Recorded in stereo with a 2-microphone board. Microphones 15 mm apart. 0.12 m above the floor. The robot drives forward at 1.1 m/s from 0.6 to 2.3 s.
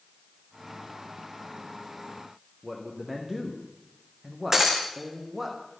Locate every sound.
2.6 s a man speaking: 20° right (ahead or behind), 5 m
4.5 s breaking glass: 25° right (ahead or behind), 4 m